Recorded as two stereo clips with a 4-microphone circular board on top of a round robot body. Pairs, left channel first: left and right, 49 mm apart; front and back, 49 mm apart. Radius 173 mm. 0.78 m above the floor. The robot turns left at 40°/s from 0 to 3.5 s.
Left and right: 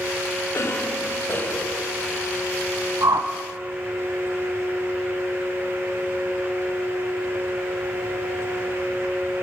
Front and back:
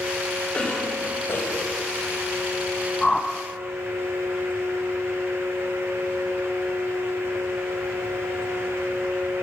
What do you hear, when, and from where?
0.5 s a cough: 70° left, 5 m; by 1.9 s 20° left, 5 m
3.0 s a whoosh: 80° right, 1.4 m; by 3.3 s 90° right, 1.4 m